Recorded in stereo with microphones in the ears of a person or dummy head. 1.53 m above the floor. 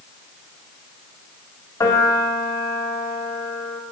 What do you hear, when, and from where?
1.8 s a piano: 20° left (ahead or behind), 4 m